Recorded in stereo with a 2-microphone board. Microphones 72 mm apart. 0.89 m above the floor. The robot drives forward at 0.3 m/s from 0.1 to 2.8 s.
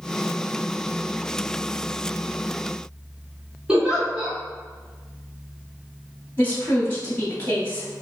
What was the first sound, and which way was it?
A giggle, 15° right (ahead or behind).